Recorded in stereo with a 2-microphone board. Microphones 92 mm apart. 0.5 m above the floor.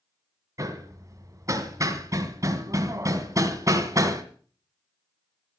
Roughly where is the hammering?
Right.